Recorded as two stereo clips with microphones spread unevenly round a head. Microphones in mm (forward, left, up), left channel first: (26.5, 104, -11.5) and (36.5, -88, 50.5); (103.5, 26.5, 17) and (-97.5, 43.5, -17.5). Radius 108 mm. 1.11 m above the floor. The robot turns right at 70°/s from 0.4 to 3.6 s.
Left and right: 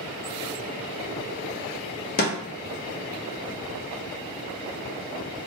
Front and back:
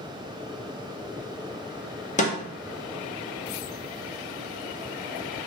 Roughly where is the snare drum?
Ahead left.